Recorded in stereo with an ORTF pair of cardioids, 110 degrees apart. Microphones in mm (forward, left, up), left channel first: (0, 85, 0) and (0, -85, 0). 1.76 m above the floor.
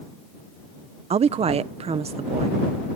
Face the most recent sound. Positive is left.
turn(degrees=-40)